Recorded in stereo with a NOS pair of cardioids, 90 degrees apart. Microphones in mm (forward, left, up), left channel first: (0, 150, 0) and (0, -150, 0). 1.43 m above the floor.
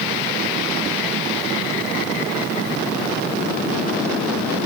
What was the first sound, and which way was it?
Only background noise.